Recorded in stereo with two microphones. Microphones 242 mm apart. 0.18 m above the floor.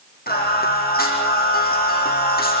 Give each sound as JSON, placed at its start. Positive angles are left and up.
{"t": 0.3, "sound": "singing", "side_deg": 40, "distance_m": 6.5}